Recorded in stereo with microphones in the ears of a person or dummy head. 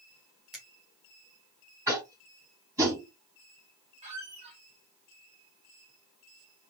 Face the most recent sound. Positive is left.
turn(degrees=-25)  # may be behind; listen again after turning